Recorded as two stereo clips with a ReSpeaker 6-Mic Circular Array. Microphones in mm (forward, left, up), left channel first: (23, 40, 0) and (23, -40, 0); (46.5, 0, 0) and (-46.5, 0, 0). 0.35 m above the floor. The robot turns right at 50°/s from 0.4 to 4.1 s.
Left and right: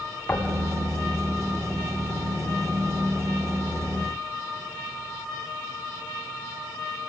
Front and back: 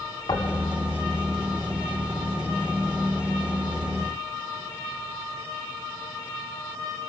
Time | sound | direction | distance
0.3 | knocking | 25° left | 1.9 m